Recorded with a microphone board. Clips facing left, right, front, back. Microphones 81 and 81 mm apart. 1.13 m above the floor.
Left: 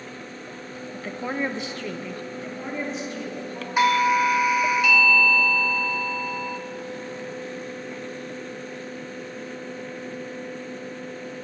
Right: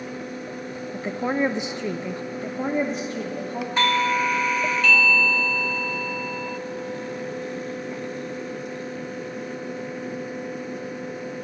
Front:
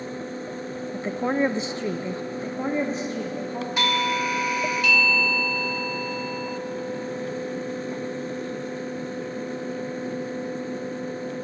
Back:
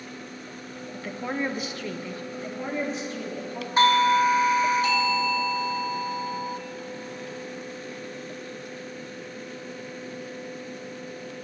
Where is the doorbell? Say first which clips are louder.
Left 3 dB, back 6 dB; 165° left, 0.5 m.